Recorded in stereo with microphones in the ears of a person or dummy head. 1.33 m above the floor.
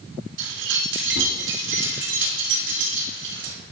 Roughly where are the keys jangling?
Right.